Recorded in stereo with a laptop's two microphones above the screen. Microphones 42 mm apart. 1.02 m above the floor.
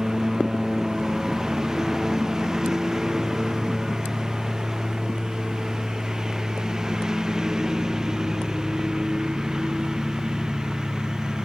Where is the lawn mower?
10° right (ahead or behind); by 11.4 s 15° right (ahead or behind).